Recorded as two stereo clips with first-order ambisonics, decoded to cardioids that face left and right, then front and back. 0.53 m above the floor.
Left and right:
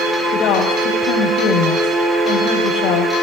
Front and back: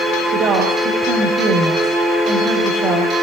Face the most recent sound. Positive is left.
turn(degrees=125)